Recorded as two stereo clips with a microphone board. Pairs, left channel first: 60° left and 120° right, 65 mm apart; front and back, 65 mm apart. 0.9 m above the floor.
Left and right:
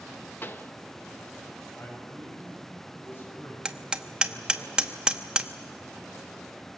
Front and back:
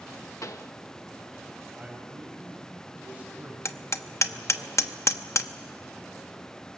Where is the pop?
15° left, 0.7 m.